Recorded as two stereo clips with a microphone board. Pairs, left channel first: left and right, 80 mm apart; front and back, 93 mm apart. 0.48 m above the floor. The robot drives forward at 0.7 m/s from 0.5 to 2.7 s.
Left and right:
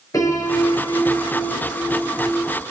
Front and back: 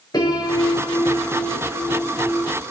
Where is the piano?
45° left, 5 m; by 2.5 s 60° left, 4 m.